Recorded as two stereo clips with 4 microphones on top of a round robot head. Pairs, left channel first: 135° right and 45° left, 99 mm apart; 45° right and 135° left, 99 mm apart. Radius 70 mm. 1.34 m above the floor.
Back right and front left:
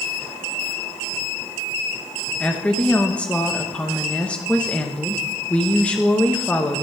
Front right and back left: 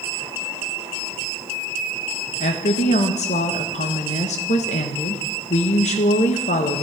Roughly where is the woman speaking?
Ahead right.